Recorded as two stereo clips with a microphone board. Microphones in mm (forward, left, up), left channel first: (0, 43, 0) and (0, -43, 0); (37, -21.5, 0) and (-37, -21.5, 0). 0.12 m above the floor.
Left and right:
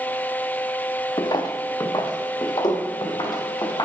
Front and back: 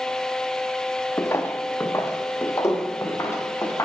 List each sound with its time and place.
1.2 s footsteps: 55° left, 0.8 m; by 3.9 s 50° left, 2.5 m